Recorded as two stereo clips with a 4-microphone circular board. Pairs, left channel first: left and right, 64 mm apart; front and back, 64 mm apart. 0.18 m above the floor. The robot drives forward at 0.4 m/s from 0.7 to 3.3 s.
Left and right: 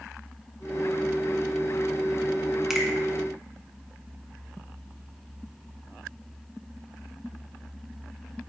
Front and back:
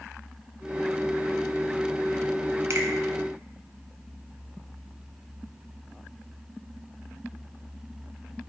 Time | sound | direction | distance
2.7 | a finger snap | 170° right | 1.1 m